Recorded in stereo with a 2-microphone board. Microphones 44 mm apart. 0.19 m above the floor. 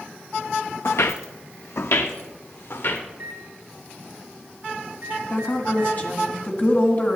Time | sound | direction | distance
0.8 | footsteps | 70° left (ahead or behind) | 0.6 m
3.1 | a microwave | 55° right (ahead or behind) | 3 m
5.3 | a woman speaking | 40° left (ahead or behind) | 1.7 m